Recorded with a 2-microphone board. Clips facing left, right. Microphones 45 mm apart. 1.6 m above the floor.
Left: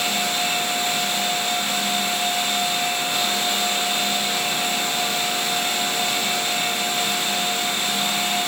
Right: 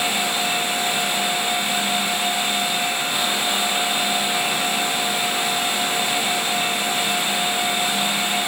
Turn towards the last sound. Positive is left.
No sound to turn to.